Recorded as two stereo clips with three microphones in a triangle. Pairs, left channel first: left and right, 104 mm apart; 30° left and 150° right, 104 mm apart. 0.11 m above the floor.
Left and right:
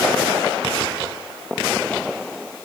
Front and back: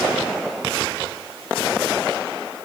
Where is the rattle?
No rattle in this recording.